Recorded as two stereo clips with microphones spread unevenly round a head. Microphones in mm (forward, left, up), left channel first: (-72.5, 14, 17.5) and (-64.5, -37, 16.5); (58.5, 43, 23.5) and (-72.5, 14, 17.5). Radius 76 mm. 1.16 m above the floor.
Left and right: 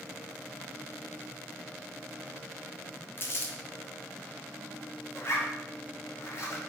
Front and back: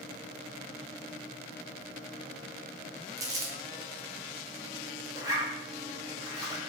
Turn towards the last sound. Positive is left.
turn(degrees=125)